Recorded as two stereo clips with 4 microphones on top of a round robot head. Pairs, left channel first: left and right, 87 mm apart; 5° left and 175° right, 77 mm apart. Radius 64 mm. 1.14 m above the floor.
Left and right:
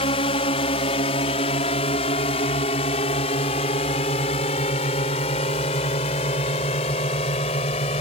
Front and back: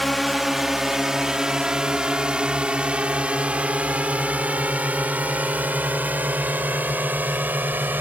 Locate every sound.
0.0 s a drone: 95° left; by 8.0 s 120° left